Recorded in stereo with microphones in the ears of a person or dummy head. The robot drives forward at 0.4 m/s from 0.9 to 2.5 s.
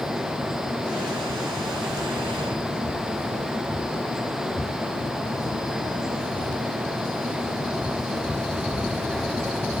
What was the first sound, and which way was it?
Only background noise.